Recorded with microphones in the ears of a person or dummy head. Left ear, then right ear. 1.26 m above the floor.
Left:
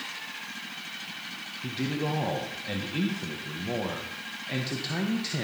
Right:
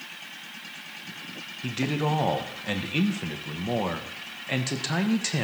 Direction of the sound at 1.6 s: 40° right (ahead or behind).